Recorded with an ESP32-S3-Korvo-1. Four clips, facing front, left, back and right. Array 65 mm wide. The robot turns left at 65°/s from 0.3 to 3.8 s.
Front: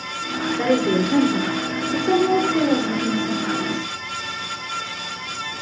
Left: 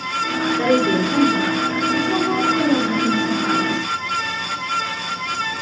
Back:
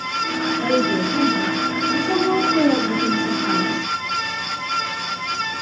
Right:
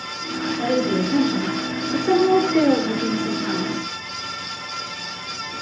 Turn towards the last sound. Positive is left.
turn(degrees=-170)